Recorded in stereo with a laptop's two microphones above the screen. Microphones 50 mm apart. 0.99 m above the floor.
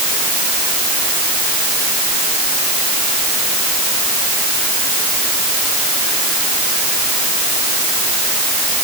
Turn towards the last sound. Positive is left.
No sound to turn to.